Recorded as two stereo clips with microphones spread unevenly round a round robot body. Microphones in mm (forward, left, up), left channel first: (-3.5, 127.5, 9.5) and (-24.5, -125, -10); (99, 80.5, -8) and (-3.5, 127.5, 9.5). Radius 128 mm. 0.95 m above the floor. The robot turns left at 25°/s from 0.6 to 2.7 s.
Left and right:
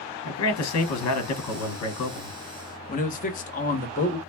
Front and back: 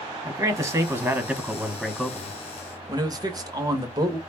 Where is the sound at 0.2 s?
90° left, 1.3 m; by 2.4 s 45° left, 1.3 m.